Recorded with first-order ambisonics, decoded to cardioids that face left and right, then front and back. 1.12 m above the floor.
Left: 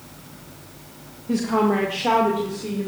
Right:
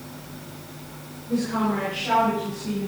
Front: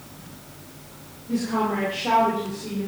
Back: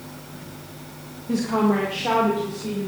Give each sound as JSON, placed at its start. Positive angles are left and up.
{"t": 1.3, "sound": "a woman speaking", "azimuth_deg": 120, "distance_m": 1.2}